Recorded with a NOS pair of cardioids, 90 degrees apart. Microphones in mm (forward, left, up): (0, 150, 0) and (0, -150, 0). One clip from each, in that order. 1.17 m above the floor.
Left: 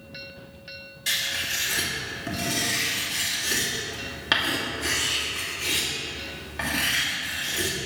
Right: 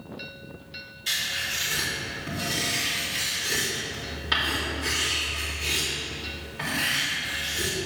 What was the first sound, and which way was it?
Writing, 50° left.